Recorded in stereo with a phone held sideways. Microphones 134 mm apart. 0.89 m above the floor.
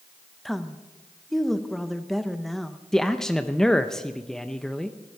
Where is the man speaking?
5° left (ahead or behind), 0.5 m.